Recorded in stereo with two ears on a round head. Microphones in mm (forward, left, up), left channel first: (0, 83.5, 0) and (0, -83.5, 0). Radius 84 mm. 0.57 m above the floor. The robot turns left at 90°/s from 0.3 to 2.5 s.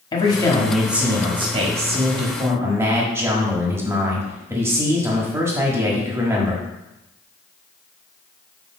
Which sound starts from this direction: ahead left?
A man speaking, at 0.1 s.